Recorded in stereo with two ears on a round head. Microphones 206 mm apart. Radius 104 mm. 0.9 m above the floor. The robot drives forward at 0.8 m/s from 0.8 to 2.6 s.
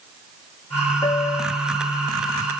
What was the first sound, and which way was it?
A piano, 20° left (ahead or behind).